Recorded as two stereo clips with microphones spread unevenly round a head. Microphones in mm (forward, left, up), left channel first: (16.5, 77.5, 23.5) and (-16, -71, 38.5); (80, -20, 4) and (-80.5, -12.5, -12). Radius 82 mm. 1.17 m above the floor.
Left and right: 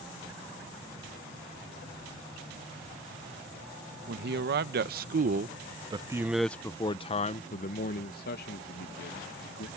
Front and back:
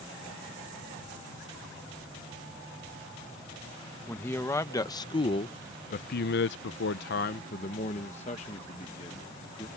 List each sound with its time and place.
4.1 s a man speaking: 80° right; by 9.7 s 65° left